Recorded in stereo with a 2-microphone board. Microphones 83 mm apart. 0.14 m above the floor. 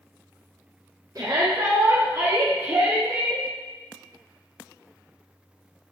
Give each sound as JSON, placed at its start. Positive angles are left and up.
{"t": 1.1, "sound": "a shout", "side_deg": -50, "distance_m": 2.0}